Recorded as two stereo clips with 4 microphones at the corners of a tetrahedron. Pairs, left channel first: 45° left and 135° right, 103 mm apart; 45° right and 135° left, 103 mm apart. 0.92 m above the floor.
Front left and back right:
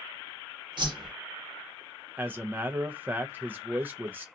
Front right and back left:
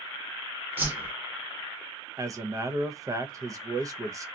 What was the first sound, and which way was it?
A whoosh, 160° right.